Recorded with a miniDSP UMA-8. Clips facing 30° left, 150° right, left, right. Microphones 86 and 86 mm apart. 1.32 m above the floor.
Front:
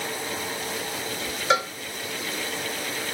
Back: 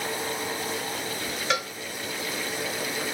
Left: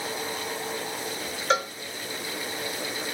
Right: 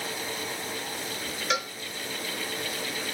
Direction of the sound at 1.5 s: 75° left.